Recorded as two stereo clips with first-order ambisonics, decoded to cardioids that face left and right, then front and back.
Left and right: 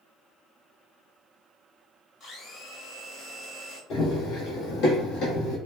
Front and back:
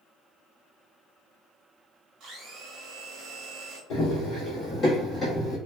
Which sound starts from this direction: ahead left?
Running footsteps, at 3.9 s.